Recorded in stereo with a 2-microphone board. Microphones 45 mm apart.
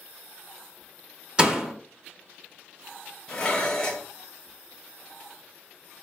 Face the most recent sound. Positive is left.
turn(degrees=15)  # may be behind; listen again after turning